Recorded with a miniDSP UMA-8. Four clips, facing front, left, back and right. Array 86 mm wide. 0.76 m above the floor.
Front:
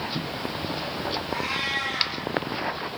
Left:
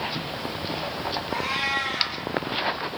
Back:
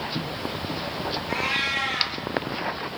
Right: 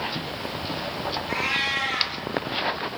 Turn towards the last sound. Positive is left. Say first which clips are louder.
# left 1 dB, back 1 dB
turn(degrees=-115)